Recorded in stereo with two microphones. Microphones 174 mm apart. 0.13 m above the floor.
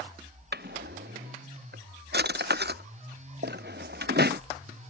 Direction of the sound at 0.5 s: 65° right (ahead or behind).